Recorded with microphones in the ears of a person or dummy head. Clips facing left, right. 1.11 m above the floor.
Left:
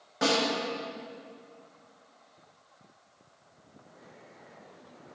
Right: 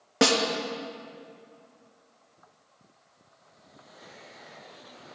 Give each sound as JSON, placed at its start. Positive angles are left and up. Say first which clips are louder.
{"t": 0.2, "sound": "a snare drum", "louder": "right 4 dB", "side_deg": -75, "distance_m": 1.5}